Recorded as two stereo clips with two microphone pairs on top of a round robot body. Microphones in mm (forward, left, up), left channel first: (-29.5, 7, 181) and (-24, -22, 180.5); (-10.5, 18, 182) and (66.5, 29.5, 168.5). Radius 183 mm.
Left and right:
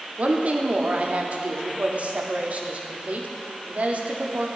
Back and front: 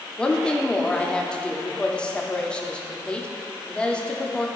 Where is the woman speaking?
85° right, 1.3 m.